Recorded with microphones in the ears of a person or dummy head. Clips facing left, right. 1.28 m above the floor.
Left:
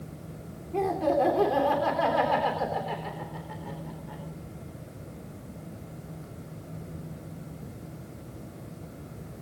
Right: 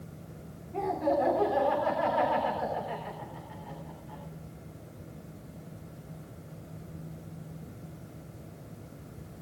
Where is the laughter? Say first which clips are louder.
Left 3 dB; 50° left (ahead or behind), 3 m; by 4.2 s 85° left, 4 m.